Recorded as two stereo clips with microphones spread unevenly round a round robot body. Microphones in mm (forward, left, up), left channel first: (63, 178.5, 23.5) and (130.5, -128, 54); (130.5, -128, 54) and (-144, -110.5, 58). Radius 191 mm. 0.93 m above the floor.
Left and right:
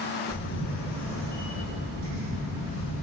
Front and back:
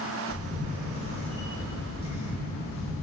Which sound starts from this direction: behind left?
A camera shutter, at 0.3 s.